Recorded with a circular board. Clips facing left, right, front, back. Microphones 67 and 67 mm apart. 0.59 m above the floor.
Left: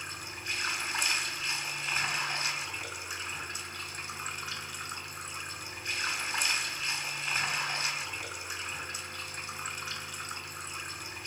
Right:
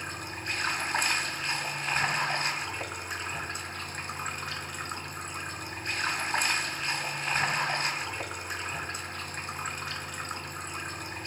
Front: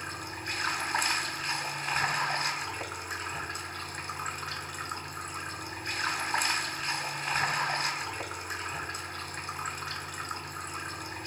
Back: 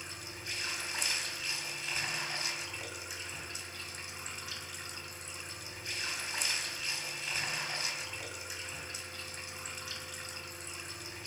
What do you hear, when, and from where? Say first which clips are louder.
0.0 s running water: right 4 dB, front 8 dB; 45° right, 1.3 m